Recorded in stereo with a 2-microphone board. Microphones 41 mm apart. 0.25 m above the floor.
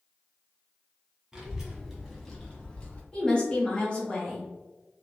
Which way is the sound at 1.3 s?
15° right (ahead or behind).